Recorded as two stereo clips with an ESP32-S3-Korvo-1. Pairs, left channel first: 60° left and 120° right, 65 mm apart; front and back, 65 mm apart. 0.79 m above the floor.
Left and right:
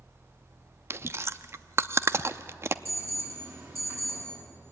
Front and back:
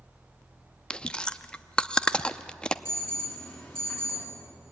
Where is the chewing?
75° right, 0.6 m.